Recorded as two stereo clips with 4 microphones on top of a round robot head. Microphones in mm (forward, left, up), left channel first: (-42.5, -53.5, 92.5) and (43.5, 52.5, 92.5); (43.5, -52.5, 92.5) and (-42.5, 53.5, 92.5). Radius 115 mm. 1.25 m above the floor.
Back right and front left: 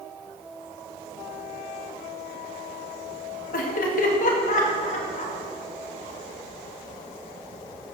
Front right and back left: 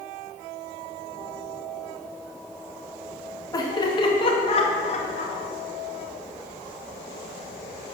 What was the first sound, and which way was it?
Laughter, 115° right.